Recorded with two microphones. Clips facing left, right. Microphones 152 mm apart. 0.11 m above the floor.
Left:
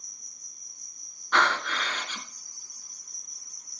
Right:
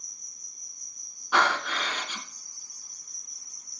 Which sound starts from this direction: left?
An insect, at 0.0 s.